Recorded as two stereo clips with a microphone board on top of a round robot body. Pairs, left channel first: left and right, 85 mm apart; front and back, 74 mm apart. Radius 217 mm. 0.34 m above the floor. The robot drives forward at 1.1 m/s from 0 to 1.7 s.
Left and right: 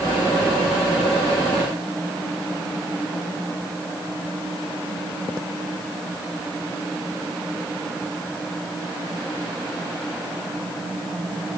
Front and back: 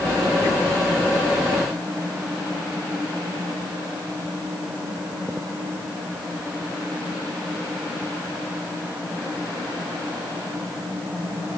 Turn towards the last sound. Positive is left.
No sound to turn to.